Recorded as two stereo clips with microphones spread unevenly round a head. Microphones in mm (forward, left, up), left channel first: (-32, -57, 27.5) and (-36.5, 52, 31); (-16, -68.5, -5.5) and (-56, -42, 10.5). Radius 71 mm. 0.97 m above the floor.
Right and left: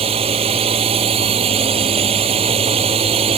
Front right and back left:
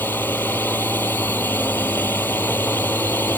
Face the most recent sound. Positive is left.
turn(degrees=45)